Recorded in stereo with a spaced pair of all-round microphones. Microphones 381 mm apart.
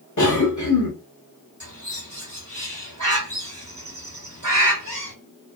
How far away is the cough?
About 1.4 m.